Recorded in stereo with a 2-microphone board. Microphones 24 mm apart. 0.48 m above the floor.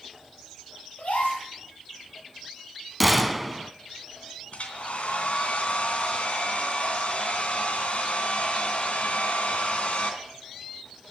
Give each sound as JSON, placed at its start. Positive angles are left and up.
{"t": 1.0, "sound": "a gasp", "side_deg": 70, "distance_m": 7.5}
{"t": 3.0, "sound": "a gunshot", "side_deg": -5, "distance_m": 1.1}
{"t": 4.5, "sound": "a hair dryer", "side_deg": 65, "distance_m": 2.5}